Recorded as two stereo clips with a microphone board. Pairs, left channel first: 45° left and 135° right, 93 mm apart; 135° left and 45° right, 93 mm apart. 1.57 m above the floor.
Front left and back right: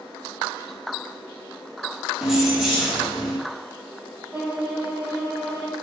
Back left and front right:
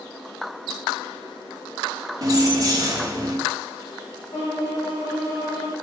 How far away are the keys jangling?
About 0.6 m.